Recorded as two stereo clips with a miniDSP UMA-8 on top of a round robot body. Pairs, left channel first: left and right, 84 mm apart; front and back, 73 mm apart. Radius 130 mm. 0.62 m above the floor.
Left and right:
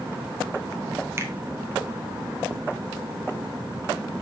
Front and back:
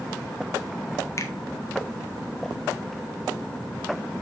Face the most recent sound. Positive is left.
turn(degrees=-40)